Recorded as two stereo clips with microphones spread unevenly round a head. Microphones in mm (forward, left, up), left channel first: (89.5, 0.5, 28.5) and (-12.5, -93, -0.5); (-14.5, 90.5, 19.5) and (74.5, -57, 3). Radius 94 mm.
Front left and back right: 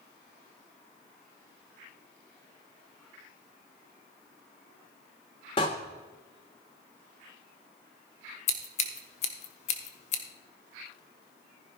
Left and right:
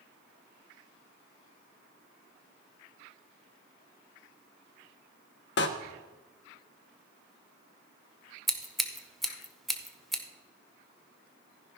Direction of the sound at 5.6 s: 105° left.